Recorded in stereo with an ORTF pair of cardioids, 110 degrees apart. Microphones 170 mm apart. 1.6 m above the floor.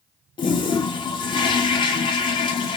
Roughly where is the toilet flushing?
Ahead left.